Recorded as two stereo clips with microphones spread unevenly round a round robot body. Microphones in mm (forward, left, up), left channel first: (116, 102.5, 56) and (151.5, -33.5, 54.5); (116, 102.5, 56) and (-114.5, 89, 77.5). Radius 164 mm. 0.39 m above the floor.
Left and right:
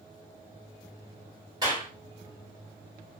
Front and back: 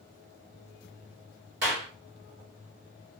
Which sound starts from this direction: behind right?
A clap, at 1.6 s.